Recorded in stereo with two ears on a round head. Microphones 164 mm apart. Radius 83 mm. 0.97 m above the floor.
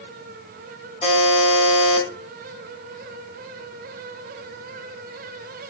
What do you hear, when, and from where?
1.0 s a buzzer: 35° left (ahead or behind), 3 m